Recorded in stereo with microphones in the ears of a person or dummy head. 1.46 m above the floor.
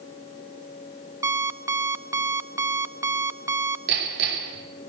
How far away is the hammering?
About 6 m.